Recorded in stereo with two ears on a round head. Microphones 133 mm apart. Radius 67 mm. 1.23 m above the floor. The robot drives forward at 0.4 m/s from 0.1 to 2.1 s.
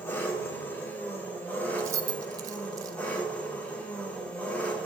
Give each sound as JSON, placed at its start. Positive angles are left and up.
{"t": 0.0, "sound": "an engine running", "side_deg": 15, "distance_m": 1.9}
{"t": 1.8, "sound": "keys jangling", "side_deg": -20, "distance_m": 0.6}